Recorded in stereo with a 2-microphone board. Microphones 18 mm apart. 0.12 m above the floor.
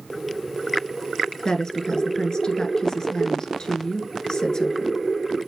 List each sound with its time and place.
1.4 s a woman speaking: 40° left (ahead or behind), 1.3 m